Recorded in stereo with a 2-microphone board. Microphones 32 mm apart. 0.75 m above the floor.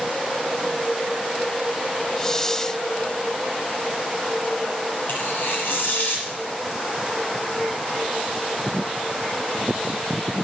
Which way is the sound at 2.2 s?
20° left (ahead or behind).